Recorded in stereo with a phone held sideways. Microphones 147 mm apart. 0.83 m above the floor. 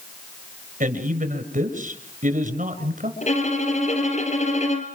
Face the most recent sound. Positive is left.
turn(degrees=50)  # may be behind; listen again after turning